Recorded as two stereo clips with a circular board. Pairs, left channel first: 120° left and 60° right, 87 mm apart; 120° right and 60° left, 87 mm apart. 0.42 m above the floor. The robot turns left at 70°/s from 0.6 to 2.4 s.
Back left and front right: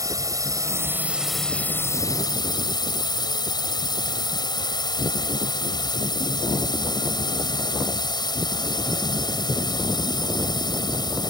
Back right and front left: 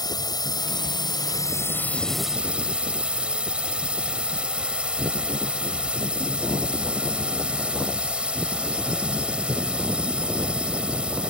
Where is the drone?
100° right; by 11.3 s 135° left.